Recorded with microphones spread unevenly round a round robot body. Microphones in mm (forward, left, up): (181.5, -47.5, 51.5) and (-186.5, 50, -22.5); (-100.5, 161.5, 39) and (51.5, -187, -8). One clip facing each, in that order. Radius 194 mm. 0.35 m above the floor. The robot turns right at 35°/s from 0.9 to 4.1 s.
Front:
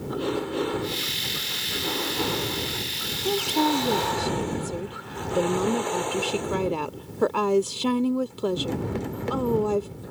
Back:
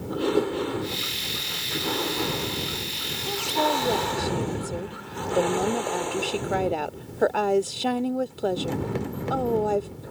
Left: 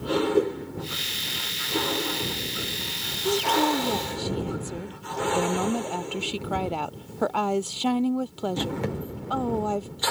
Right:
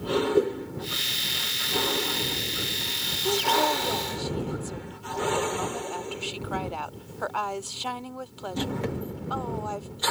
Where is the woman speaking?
35° left; by 9.9 s 65° left.